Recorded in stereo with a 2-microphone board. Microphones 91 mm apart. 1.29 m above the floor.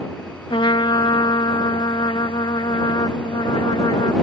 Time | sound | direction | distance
0.5 | a trumpet | 65° left (ahead or behind) | ?